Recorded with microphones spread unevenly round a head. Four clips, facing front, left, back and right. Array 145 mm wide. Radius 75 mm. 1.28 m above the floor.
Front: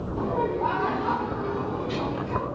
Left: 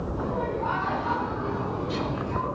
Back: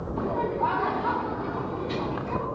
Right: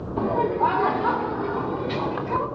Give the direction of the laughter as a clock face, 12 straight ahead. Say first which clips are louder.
Right 9 dB, front 1 dB; 3 o'clock.